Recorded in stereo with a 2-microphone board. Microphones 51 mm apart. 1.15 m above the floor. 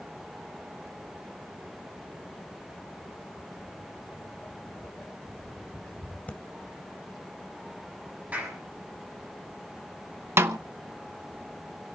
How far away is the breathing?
About 1.9 m.